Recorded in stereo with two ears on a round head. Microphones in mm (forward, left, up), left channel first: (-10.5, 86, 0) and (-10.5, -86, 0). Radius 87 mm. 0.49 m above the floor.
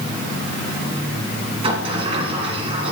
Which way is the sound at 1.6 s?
30° right (ahead or behind).